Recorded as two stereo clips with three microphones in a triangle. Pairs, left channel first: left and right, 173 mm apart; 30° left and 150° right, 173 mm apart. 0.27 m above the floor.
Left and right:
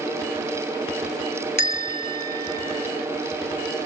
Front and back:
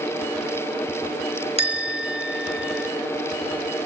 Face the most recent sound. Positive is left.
turn(degrees=-100)